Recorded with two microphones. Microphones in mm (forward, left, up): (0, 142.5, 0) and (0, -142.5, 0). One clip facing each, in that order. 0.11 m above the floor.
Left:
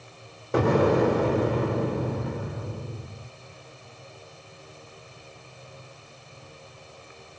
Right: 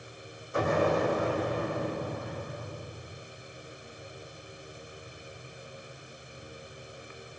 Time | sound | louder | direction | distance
0.5 | an explosion | left 7 dB | 80° left | 1.4 m